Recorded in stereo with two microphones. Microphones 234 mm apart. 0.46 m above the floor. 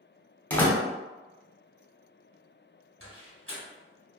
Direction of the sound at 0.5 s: 5° left (ahead or behind).